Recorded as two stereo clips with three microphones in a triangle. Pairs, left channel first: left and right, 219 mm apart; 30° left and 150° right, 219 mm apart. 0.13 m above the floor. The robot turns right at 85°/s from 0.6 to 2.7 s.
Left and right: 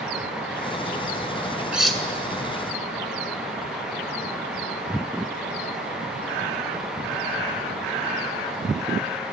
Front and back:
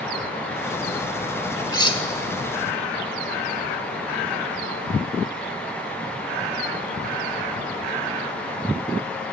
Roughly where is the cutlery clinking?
Ahead.